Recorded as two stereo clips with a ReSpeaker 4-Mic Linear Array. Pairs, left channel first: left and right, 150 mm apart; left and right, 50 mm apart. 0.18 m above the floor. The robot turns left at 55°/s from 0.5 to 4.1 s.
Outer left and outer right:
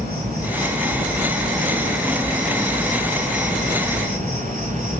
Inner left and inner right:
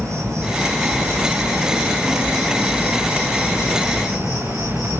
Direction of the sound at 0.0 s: 75° right.